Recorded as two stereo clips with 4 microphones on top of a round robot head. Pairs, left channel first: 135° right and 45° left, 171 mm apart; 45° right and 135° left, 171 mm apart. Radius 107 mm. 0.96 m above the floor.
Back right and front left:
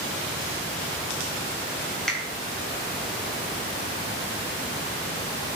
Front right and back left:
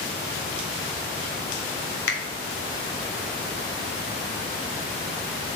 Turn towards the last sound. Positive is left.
turn(degrees=-50)